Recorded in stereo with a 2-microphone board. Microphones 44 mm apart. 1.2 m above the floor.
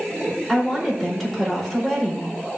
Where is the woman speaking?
5° left (ahead or behind), 4.5 m.